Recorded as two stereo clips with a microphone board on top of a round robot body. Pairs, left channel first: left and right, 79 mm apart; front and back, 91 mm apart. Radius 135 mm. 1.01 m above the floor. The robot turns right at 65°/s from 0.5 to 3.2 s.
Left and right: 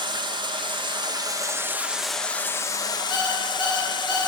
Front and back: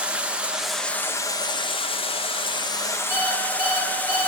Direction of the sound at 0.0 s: 105° right.